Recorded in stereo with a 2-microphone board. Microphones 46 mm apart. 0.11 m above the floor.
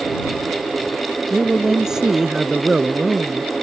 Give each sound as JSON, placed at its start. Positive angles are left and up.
{"t": 1.3, "sound": "a man speaking", "side_deg": -15}